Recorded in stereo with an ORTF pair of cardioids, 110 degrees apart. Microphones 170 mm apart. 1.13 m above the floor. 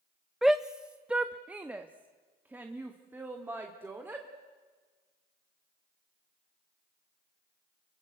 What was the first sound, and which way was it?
A shout, straight ahead.